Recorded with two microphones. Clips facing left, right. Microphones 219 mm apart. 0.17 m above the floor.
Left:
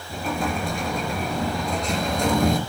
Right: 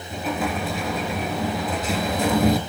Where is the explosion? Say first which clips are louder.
Right 1 dB; 5° right (ahead or behind), 3.5 m.